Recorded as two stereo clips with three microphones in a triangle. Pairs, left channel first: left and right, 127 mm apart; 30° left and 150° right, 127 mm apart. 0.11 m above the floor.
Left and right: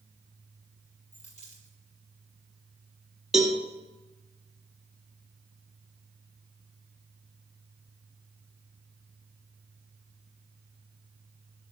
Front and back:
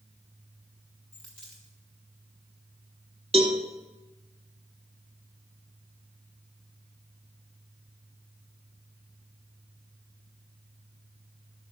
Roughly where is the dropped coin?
Left.